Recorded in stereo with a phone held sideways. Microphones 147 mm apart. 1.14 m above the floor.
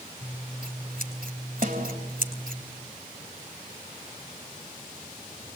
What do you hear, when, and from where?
0.2 s scissors: 80° right, 3 m
1.6 s a snare drum: 65° right (ahead or behind), 3 m